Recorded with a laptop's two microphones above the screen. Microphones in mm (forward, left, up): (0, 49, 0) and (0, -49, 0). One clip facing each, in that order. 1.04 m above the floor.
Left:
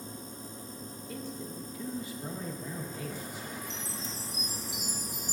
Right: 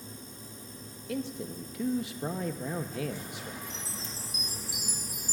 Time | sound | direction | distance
0.0 | a machine running | 40° left (ahead or behind) | 1.7 m
1.1 | a man speaking | 80° right | 1.0 m
3.6 | a chime | 25° left (ahead or behind) | 4.5 m